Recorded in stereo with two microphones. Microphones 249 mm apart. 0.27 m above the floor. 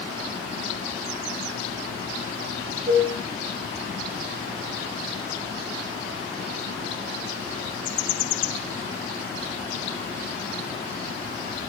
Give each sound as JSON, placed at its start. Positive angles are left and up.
{"t": 2.9, "sound": "dishes clattering", "side_deg": -25, "distance_m": 1.8}